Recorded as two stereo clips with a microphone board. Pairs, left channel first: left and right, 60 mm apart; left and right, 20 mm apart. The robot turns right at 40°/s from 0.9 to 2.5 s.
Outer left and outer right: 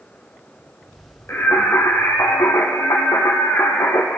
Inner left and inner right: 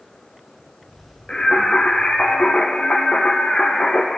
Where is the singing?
45° left, 3 m; by 4.2 s 95° left, 3 m.